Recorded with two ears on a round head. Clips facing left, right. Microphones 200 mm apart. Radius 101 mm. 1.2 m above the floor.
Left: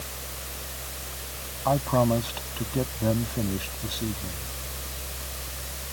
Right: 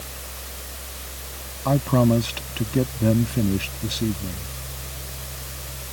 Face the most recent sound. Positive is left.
turn(degrees=-30)  # may be behind; listen again after turning